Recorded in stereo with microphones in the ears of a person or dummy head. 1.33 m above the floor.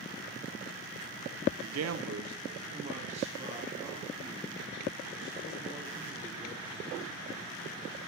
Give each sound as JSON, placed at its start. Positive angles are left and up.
{"t": 1.6, "sound": "a man speaking", "side_deg": -55, "distance_m": 0.6}